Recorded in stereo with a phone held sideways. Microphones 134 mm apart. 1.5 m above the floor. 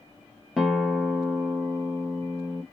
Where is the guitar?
Centre (ahead or behind), 0.8 m.